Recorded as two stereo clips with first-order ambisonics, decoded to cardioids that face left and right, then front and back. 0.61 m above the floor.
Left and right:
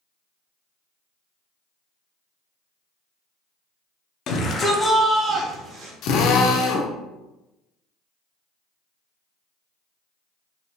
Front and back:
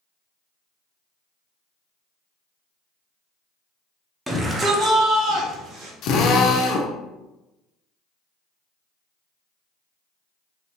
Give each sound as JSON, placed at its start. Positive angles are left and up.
{"t": 4.3, "sound": "a shout", "azimuth_deg": 100, "distance_m": 0.7}
{"t": 6.0, "sound": "a drill", "azimuth_deg": 45, "distance_m": 0.5}